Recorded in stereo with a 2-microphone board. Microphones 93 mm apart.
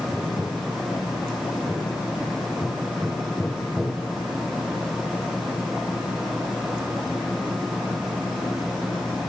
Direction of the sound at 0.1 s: Centre (ahead or behind).